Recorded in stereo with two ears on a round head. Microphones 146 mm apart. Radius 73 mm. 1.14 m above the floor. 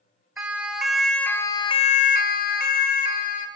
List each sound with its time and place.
0.4 s a siren: 10° right (ahead or behind), 2 m; by 3.5 s 50° left (ahead or behind), 2.5 m